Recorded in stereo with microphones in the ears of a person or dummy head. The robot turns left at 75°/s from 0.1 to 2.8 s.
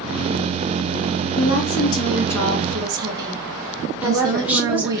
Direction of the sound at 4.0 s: 10° right (ahead or behind).